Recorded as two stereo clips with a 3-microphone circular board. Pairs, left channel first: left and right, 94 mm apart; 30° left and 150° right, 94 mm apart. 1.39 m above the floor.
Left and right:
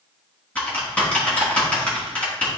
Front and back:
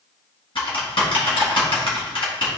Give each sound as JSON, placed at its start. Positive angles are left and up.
{"t": 0.6, "sound": "typing on a keyboard", "azimuth_deg": 15, "distance_m": 3.0}